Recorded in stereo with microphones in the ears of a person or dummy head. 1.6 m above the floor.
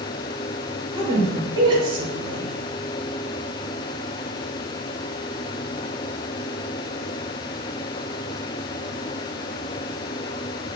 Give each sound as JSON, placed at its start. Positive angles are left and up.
{"t": 0.9, "sound": "a woman speaking", "side_deg": -25, "distance_m": 1.7}